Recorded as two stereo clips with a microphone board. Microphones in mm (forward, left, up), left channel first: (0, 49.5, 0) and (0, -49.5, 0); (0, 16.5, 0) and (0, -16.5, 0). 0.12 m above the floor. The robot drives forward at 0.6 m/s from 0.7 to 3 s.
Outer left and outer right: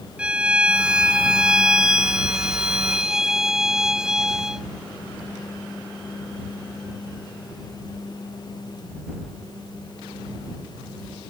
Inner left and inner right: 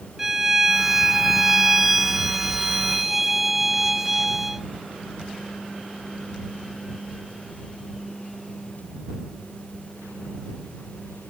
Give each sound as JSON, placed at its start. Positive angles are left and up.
{"t": 0.2, "sound": "a violin", "side_deg": -10}